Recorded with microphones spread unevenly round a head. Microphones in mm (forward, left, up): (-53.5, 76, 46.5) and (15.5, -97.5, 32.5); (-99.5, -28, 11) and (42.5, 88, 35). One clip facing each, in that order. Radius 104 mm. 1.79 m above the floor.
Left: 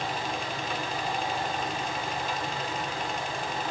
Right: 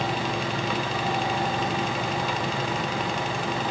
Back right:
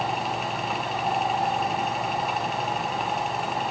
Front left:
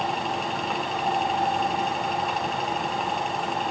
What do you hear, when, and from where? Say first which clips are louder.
0.0 s a fan: right 5 dB, even; 45° right, 1.1 m